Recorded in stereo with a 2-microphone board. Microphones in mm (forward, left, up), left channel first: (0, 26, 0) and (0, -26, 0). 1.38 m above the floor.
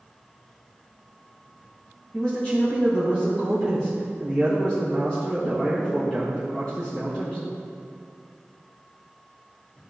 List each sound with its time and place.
2.1 s a man speaking: 20° left (ahead or behind), 1.6 m